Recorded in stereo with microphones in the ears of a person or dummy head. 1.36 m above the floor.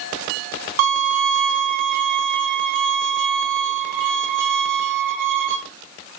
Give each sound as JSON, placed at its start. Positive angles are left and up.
{"t": 0.8, "sound": "a violin", "side_deg": -55, "distance_m": 1.1}